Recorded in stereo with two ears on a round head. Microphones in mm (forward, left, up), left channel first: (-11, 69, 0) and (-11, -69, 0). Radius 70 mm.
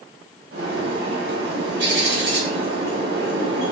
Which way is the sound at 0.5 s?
80° right.